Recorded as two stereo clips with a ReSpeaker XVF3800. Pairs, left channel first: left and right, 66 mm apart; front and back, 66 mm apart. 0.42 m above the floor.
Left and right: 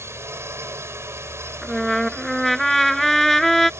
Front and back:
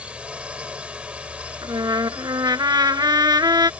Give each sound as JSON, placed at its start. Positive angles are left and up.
{"t": 0.0, "sound": "a drone", "azimuth_deg": -115}
{"t": 1.6, "sound": "a trumpet", "azimuth_deg": 175}